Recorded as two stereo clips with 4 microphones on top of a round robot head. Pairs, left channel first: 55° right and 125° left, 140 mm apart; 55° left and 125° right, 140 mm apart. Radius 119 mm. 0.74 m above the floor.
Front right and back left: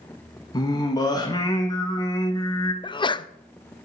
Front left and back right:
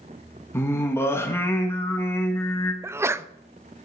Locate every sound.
0.5 s singing: 10° right, 1.4 m
2.8 s a sneeze: 70° right, 0.5 m